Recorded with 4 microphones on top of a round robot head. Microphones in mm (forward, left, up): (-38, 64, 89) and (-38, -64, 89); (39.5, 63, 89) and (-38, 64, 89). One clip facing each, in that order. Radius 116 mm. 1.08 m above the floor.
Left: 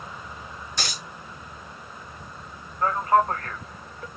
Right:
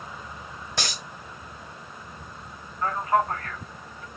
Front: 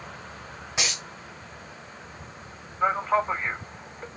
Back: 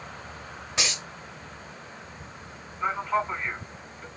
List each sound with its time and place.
0.8 s a dropped coin: 85° right, 1.1 m
2.8 s a man speaking: 40° left, 2 m